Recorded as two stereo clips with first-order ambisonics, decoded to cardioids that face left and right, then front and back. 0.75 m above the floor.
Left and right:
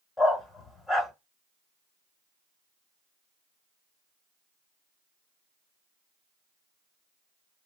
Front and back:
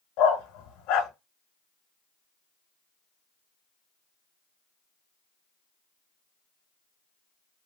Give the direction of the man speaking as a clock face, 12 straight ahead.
I don't hear a man speaking.